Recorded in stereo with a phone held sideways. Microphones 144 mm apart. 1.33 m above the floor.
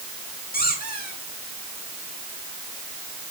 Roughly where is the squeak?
Left.